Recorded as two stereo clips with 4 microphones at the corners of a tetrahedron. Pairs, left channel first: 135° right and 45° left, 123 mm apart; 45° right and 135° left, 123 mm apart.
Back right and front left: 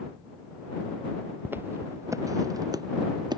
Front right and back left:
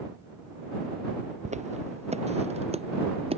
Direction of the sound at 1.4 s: 120° left.